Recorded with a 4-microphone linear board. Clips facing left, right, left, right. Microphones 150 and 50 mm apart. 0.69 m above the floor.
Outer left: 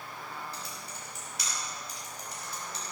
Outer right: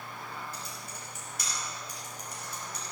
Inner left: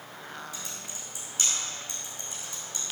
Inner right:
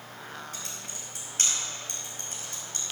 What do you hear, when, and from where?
0.5 s typing on a keyboard: 50° right (ahead or behind), 5 m